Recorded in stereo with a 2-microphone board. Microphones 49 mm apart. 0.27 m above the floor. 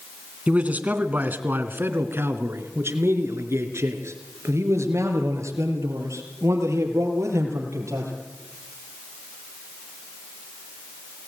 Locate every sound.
0.5 s a man speaking: 25° right (ahead or behind), 2.5 m; by 8.1 s 80° right, 6.5 m